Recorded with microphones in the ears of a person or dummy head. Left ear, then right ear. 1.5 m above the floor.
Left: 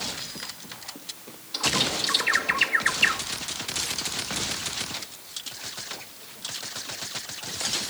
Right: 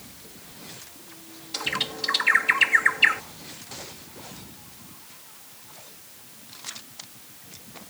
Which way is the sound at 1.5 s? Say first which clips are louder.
Left 3 dB; 10° right (ahead or behind).